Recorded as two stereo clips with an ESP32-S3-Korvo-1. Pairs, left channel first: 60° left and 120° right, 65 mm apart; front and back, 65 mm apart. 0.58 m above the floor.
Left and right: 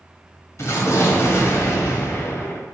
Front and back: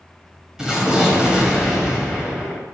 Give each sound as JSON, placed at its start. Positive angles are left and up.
{"t": 0.6, "sound": "an explosion", "azimuth_deg": 100, "distance_m": 2.0}